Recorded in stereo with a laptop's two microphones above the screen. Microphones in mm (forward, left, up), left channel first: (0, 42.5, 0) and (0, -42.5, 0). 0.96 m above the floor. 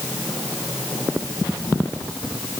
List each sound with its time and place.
Only background noise.